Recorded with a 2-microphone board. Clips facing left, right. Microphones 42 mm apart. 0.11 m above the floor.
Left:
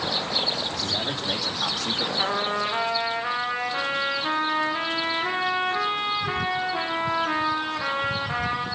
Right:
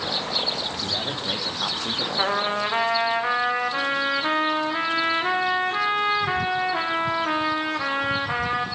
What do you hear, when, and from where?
0.7 s a man speaking: 15° right (ahead or behind), 4.5 m; by 2.1 s 25° right (ahead or behind), 4 m
2.2 s a trumpet: 70° right (ahead or behind), 4 m